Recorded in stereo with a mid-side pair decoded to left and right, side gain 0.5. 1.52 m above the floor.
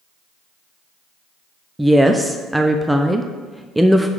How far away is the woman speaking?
About 0.6 m.